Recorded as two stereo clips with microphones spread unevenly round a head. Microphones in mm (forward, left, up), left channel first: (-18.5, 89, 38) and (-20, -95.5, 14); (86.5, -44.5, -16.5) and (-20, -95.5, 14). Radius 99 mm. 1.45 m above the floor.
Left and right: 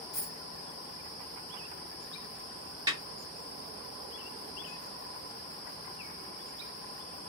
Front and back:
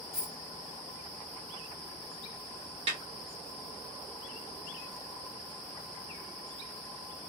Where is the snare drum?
165° right, 1.5 m.